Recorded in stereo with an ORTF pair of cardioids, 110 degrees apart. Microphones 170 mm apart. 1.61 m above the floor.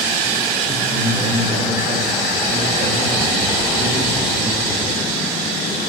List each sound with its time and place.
0.7 s a man speaking: 65° right, 3.5 m